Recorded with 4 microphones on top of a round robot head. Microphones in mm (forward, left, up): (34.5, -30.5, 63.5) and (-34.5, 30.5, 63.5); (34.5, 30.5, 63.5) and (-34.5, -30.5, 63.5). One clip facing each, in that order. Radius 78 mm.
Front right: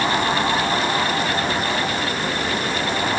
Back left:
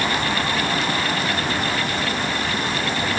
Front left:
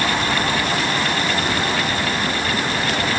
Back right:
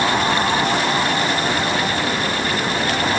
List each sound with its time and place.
Only background noise.